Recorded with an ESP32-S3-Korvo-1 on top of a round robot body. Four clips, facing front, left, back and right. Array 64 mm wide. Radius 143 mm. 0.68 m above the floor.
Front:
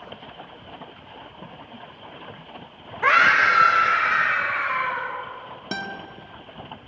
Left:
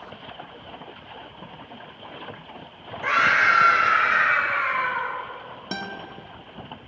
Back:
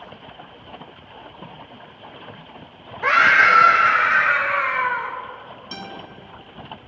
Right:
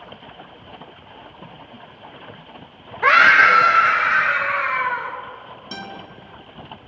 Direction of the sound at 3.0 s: 70° right.